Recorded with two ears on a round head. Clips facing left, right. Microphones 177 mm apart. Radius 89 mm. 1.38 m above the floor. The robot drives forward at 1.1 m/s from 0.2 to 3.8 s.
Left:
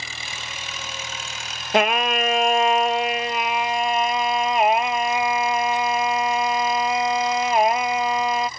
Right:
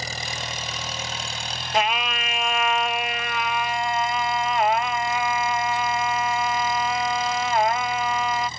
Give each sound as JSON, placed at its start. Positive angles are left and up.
{"t": 0.0, "sound": "an engine running", "side_deg": -35}
{"t": 1.7, "sound": "singing", "side_deg": 50}